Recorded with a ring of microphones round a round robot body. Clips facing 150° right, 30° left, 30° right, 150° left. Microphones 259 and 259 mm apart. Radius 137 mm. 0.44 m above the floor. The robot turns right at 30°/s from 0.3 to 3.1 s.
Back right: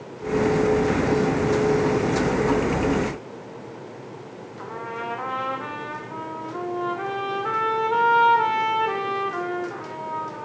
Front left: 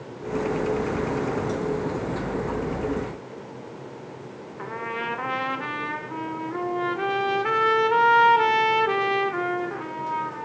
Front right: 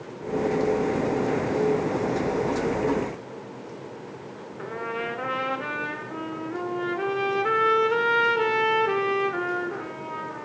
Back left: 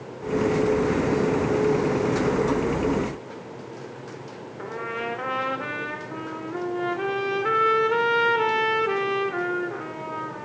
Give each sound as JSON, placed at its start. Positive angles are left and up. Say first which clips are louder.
{"t": 4.6, "sound": "a trumpet", "louder": "front left 1 dB, even", "azimuth_deg": 60, "distance_m": 1.3}